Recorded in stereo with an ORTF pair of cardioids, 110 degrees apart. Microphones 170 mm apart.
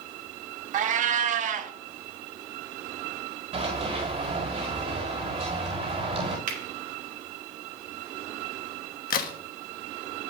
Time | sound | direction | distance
0.7 | a cat meowing | 50° right | 0.8 m
3.5 | running footsteps | 35° right | 4 m
6.5 | a finger snap | 50° right | 3 m
9.1 | a crack | 60° left | 1.4 m